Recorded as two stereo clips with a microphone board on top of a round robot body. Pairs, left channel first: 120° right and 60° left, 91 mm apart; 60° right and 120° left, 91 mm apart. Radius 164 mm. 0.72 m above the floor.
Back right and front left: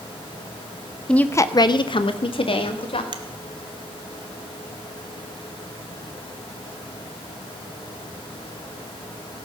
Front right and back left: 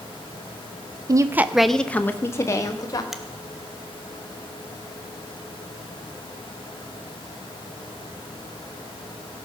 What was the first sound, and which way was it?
A woman speaking, 160° left.